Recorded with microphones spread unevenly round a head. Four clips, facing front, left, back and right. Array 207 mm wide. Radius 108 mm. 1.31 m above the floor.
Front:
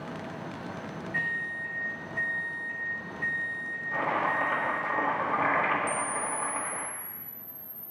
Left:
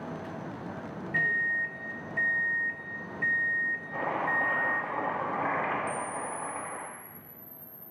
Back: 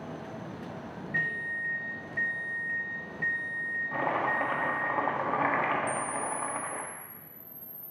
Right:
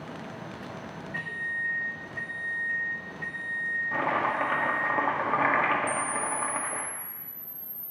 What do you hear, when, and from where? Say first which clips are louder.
1.1 s a microwave: left 6 dB, back 1 dB; 105° left, 0.9 m
3.9 s chopping: right 4 dB, front 1 dB; 95° right, 1.3 m
5.9 s a camera shutter: right 4 dB, front 1 dB; 50° right, 0.6 m